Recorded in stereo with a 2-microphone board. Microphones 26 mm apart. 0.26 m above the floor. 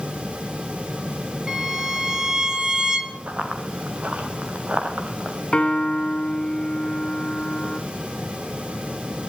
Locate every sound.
1.5 s a violin: 25° right (ahead or behind), 3 m
3.3 s running footsteps: 65° right (ahead or behind), 3.5 m; by 5.4 s 50° right (ahead or behind), 3.5 m
5.5 s a piano: 35° left (ahead or behind), 1.7 m